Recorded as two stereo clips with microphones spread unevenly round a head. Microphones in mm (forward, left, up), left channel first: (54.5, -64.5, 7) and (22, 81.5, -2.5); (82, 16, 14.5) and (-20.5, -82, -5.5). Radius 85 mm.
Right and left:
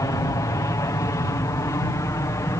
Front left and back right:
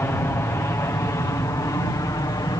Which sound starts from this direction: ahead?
An aircraft, at 0.0 s.